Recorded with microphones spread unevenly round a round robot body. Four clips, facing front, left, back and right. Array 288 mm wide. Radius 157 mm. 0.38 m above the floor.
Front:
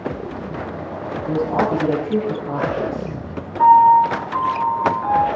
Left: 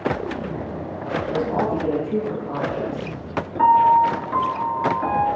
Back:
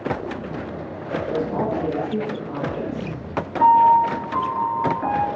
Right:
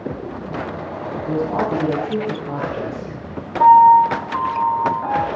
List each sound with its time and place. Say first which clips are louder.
1.3 s a man speaking: right 3 dB, front 5 dB; 40° right, 7 m
3.6 s a piano: right 6 dB, front 3 dB; 145° left, 3 m